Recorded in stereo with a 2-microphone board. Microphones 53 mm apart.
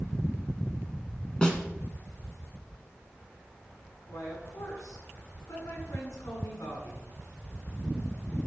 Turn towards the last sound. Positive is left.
turn(degrees=80)